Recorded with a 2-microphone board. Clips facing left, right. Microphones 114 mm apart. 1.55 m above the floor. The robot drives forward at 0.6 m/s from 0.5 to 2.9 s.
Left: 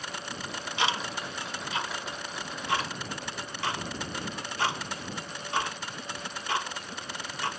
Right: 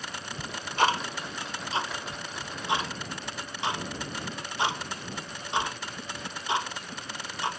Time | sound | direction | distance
0.4 | ticking | 55° right (ahead or behind) | 0.8 m